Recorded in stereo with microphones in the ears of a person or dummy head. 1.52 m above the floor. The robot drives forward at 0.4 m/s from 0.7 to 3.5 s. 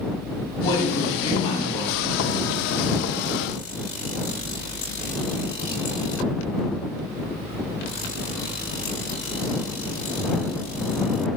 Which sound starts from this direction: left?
A woman speaking, at 0.6 s.